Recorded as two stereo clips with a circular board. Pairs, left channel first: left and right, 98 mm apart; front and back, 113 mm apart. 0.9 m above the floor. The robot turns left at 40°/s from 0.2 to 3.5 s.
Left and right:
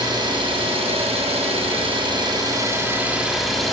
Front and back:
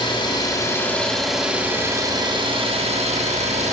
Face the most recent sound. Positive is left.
turn(degrees=180)